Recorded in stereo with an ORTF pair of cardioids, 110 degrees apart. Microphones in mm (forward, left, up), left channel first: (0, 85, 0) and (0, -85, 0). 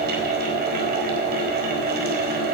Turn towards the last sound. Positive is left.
turn(degrees=-65)